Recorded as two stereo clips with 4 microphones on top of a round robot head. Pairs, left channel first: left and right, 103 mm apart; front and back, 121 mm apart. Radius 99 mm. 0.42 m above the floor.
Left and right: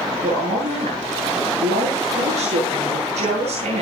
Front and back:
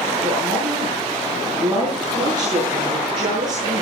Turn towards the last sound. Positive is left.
turn(degrees=-115)